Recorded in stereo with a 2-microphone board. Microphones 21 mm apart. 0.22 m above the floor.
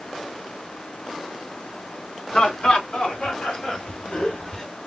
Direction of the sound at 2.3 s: 55° left (ahead or behind).